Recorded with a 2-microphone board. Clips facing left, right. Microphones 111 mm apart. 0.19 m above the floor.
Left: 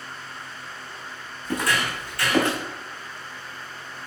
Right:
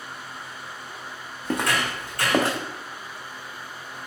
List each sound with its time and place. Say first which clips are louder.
1.4 s footsteps: even; 75° right (ahead or behind), 1.0 m; by 2.6 s 35° right (ahead or behind), 1.0 m